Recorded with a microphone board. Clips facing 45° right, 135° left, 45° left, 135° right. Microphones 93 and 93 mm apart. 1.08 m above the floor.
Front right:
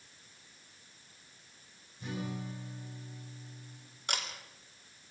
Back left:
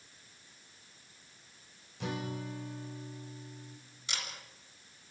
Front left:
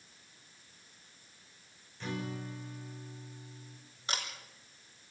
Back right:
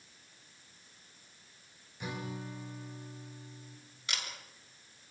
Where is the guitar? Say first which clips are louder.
Back left 2 dB, front left 2 dB; 145° left, 3.5 m.